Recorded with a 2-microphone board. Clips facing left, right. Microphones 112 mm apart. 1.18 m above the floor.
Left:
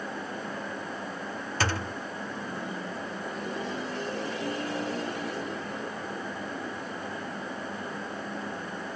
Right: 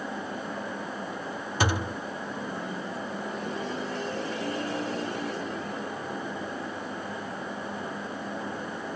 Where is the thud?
15° right (ahead or behind).